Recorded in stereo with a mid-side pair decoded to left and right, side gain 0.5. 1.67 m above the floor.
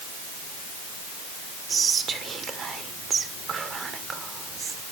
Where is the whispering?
45° right, 1.8 m.